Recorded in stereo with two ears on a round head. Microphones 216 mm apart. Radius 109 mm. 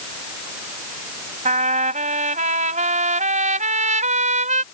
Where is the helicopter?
No helicopter in this recording.